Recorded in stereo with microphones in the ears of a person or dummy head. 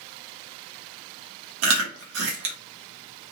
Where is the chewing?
80° right, 1.2 m.